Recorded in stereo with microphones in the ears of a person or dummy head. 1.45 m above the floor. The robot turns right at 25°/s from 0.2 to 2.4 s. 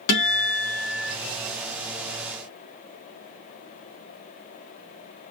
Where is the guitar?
70° left (ahead or behind), 0.9 m; by 1.1 s 80° left, 0.9 m.